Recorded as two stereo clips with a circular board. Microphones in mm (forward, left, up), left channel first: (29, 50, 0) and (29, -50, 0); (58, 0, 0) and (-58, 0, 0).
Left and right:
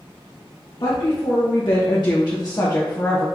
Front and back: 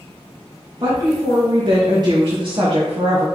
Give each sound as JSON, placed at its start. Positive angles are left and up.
{"t": 0.8, "sound": "a woman speaking", "azimuth_deg": 120, "distance_m": 2.0}